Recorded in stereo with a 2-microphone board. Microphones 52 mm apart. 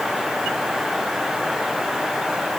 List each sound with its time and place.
Only background noise.